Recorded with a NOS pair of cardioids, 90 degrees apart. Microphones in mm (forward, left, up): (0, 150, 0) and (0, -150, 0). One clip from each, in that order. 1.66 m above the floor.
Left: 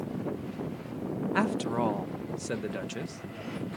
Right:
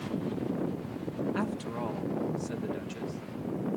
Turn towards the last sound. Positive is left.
turn(degrees=50)